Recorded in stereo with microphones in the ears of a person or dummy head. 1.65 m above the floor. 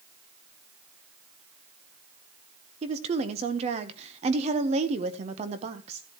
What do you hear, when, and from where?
2.8 s a woman speaking: 40° right (ahead or behind), 0.9 m